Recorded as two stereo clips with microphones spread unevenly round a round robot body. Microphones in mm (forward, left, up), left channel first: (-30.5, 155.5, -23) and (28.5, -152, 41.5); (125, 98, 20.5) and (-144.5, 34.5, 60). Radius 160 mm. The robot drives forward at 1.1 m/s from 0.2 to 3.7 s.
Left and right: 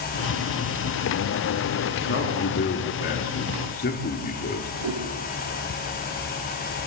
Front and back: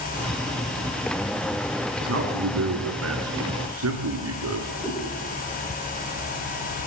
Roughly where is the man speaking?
Behind left.